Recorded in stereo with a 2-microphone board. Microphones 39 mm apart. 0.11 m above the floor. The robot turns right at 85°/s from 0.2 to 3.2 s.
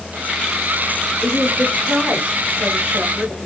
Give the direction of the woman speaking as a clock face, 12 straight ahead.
11 o'clock.